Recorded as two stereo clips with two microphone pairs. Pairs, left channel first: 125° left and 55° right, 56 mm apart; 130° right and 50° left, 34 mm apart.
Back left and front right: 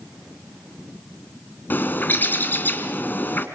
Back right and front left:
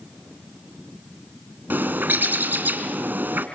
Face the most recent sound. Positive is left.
turn(degrees=70)